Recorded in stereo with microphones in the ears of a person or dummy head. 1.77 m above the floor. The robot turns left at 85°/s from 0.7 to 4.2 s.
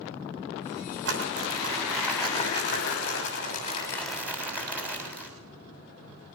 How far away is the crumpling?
About 6.5 m.